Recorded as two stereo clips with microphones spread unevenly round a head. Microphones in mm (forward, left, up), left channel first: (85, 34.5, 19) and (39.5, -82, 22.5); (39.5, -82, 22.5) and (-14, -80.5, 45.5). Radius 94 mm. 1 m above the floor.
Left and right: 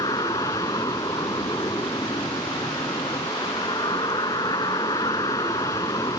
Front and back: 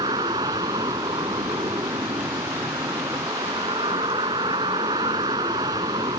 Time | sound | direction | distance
0.0 | a vehicle | 145° left | ?